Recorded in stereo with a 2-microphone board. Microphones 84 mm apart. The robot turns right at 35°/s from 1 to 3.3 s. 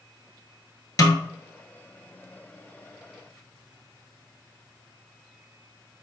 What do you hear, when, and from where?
1.0 s a snare drum: 45° left (ahead or behind), 1.0 m